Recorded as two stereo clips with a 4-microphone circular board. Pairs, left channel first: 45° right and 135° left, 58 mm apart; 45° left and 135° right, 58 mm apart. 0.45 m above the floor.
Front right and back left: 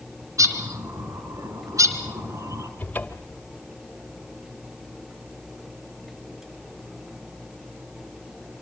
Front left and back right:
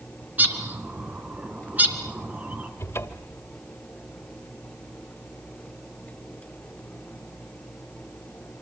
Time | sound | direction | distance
0.4 | a bird | 165° left | 3 m
2.8 | a cupboard door | 15° left | 1.6 m